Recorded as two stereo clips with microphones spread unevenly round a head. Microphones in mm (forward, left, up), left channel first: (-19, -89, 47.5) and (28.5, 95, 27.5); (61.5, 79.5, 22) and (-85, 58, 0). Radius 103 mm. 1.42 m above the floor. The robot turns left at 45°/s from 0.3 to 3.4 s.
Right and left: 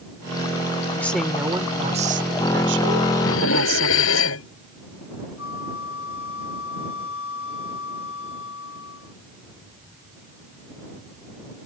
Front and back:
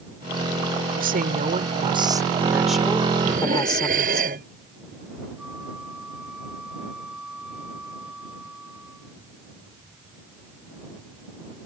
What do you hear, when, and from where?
0.9 s a woman speaking: straight behind; by 4.2 s 70° left
3.2 s dishes clattering: 110° right; by 4.5 s 120° right
5.4 s a flute: 85° right